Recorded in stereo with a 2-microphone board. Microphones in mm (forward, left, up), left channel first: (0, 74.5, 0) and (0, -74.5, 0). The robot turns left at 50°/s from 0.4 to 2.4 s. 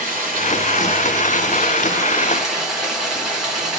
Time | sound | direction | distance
0.0 | running water | 80° right | 3 m